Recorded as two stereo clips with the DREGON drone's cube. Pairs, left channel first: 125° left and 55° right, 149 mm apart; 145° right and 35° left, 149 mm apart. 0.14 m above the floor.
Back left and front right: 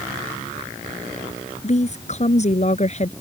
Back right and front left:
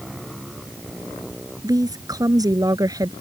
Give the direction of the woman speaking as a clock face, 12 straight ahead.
9 o'clock.